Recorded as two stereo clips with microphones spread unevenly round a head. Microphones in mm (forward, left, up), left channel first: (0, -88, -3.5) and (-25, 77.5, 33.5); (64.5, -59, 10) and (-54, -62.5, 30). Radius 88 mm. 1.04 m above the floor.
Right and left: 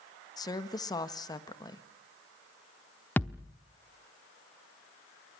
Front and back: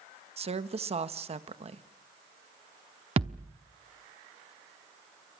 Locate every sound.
0.4 s a woman speaking: 145° right, 1.4 m
3.2 s a thud: 170° right, 0.8 m